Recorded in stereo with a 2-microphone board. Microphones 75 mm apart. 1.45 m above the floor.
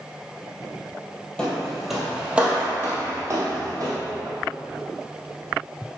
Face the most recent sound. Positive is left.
turn(degrees=-50)  # may be behind; listen again after turning